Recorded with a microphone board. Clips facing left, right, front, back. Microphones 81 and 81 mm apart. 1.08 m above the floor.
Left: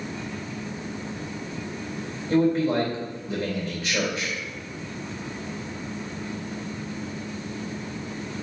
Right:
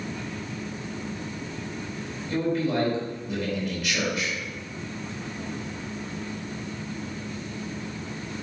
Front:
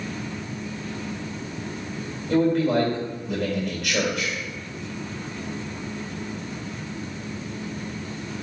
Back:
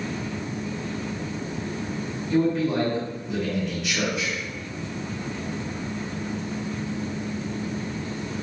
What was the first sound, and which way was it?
A man speaking, 30° left.